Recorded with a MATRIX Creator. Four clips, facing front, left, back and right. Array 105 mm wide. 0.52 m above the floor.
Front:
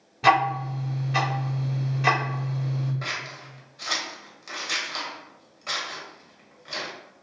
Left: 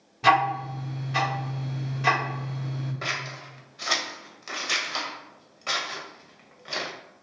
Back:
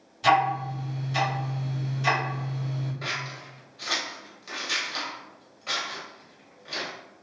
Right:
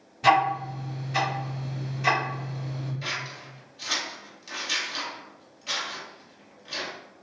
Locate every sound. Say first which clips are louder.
0.2 s ticking: even, front 1 dB; 10° left, 1.4 m
3.0 s scissors: left 2 dB, even; 80° left, 0.5 m